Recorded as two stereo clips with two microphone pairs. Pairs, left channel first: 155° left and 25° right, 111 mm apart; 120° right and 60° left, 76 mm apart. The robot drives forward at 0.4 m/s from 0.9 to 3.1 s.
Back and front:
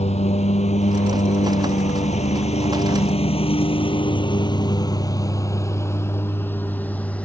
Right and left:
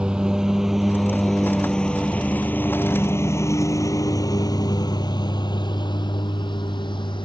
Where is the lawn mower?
140° left; by 7.2 s 125° right.